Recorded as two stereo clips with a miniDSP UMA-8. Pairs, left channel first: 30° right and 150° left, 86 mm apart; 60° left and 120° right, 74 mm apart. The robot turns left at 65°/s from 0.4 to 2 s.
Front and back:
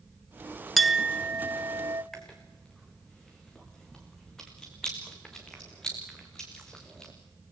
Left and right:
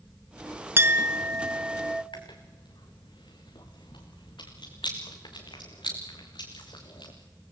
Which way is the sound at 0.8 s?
120° right.